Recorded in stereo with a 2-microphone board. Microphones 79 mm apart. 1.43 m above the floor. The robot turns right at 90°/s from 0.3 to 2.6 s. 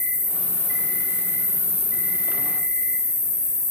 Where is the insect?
140° left, 1.2 m; by 3.7 s 10° right, 1.2 m.